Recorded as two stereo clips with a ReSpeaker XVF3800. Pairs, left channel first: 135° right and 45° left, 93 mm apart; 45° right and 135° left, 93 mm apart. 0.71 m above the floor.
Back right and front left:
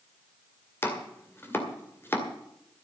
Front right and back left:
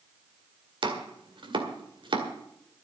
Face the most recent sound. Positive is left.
turn(degrees=160)